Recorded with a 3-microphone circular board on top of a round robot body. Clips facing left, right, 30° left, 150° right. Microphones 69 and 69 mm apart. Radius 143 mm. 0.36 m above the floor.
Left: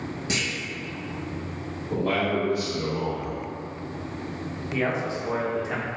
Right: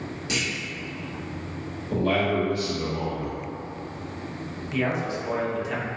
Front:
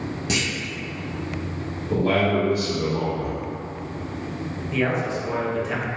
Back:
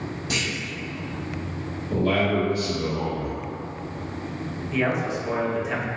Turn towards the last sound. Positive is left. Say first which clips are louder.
# even, front 1 dB
turn(degrees=130)